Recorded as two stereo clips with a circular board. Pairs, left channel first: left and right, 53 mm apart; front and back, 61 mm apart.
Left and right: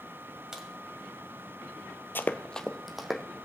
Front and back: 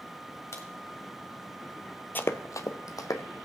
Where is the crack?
15° right, 1.6 m.